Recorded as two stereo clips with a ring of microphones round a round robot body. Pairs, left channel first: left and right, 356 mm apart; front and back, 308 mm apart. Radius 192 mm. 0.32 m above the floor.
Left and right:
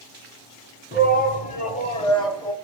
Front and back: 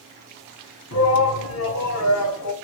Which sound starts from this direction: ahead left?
A shout, at 0.9 s.